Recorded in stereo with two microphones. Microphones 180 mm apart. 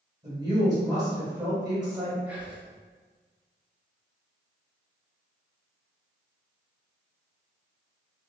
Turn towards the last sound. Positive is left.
turn(degrees=-10)  # may be behind; listen again after turning